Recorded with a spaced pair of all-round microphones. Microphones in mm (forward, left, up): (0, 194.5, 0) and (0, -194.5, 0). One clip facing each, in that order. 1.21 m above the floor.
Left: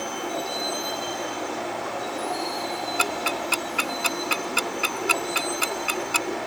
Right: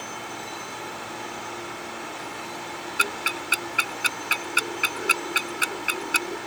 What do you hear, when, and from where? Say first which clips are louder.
0.0 s a vehicle: left 8 dB; 90° left
3.0 s ticking: left 4 dB; 10° left (ahead or behind)